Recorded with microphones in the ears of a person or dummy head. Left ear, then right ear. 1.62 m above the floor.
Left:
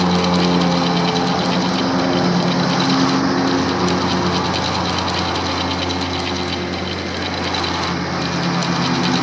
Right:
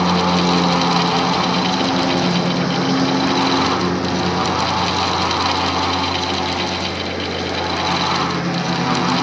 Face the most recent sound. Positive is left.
turn(degrees=5)  # may be behind; listen again after turning